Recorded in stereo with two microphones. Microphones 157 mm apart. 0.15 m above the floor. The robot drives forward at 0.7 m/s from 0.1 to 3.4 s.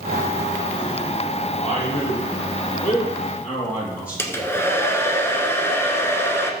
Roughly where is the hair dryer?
Centre.